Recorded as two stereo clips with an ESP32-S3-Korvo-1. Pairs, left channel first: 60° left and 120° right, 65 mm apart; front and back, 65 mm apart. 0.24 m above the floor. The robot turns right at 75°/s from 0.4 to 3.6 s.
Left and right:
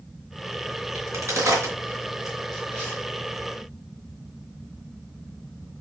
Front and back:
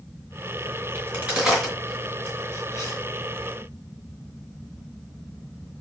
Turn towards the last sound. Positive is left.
turn(degrees=65)